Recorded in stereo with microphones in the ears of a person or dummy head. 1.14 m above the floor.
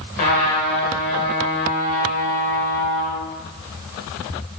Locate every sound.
0.2 s a trumpet: 50° left (ahead or behind), 6 m